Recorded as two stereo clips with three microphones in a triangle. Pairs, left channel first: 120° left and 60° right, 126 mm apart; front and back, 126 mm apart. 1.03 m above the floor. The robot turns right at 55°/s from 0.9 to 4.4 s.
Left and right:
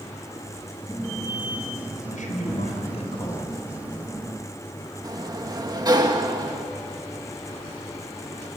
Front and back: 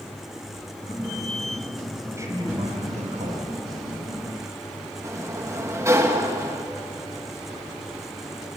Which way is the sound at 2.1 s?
105° left.